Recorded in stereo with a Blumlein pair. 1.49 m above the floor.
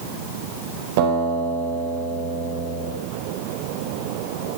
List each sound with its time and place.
1.0 s a guitar: 50° right, 4.5 m